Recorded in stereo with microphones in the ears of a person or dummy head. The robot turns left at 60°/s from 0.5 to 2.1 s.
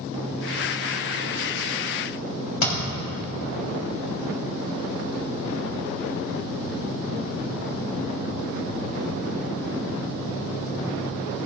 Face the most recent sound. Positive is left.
turn(degrees=45)  # may be behind; listen again after turning